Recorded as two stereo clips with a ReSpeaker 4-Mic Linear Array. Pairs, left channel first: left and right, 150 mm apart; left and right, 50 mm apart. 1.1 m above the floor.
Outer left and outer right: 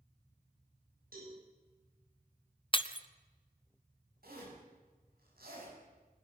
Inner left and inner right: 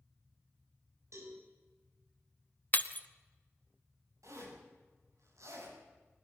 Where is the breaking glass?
35° left (ahead or behind), 0.9 m.